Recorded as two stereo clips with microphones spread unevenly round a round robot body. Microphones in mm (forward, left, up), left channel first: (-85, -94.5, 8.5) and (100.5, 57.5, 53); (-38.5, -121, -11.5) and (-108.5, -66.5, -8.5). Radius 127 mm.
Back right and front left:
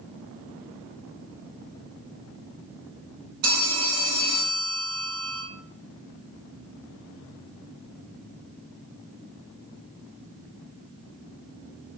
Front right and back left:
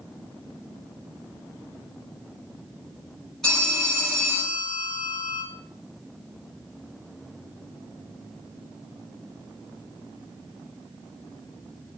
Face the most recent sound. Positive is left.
turn(degrees=45)